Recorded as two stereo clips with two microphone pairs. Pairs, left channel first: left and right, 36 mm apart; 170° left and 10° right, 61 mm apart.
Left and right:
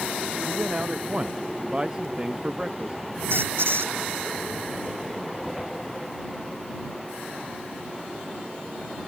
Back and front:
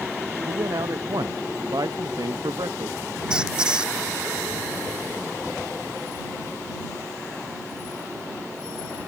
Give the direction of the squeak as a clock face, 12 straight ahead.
3 o'clock.